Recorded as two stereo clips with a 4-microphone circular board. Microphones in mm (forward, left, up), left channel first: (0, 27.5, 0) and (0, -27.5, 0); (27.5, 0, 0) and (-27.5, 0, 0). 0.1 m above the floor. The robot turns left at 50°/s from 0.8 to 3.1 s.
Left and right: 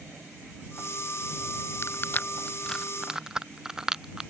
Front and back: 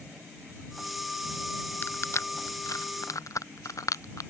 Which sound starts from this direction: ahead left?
Crushing, at 1.8 s.